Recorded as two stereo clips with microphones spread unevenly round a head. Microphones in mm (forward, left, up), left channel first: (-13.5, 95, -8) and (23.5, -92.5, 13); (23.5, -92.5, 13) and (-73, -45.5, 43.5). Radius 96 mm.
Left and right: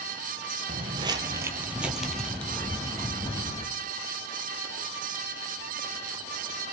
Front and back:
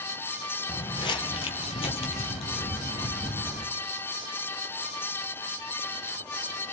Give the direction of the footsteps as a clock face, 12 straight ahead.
2 o'clock.